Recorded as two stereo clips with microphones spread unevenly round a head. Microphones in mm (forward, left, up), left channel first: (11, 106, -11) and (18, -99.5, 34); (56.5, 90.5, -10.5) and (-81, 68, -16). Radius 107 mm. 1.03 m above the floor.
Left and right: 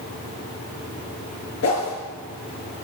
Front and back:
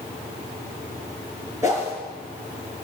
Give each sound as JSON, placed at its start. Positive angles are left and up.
{"t": 1.6, "sound": "a whoosh", "azimuth_deg": 120, "distance_m": 6.0}